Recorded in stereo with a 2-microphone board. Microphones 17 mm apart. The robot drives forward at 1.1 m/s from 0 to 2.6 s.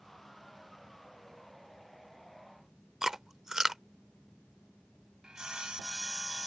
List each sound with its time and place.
3.0 s chewing: 35° right (ahead or behind)
5.2 s sawing: 50° right (ahead or behind)